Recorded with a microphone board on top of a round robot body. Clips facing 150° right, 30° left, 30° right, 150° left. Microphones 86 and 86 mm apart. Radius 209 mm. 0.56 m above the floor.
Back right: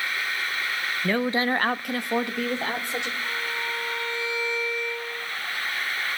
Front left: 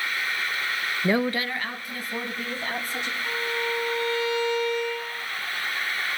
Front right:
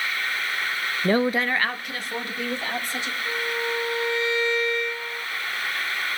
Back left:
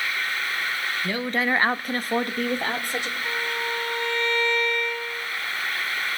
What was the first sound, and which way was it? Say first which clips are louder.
A woman speaking: even, front right 5 dB; 30° right.